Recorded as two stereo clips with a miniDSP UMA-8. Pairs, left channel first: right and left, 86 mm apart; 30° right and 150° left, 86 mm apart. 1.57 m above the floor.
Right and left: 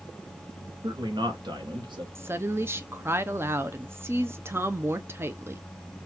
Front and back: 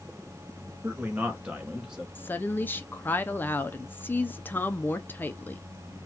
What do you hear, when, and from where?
0.8 s a man speaking: 85° left, 0.8 m; by 2.0 s 65° left, 1.4 m
2.1 s a woman speaking: 35° left, 0.5 m